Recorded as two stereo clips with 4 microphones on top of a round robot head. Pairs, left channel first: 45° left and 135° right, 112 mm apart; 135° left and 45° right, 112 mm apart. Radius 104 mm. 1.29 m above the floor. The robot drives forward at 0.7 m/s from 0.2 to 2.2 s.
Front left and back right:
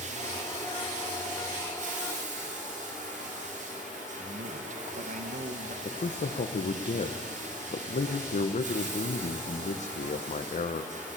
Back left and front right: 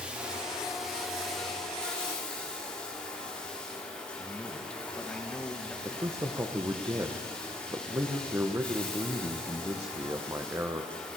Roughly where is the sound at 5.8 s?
Ahead left.